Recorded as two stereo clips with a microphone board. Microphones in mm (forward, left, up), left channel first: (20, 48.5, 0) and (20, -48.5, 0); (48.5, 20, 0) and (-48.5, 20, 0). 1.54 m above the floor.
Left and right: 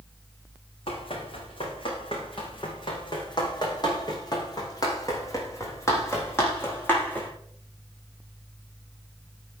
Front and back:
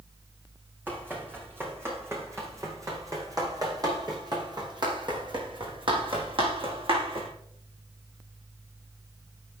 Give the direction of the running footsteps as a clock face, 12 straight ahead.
8 o'clock.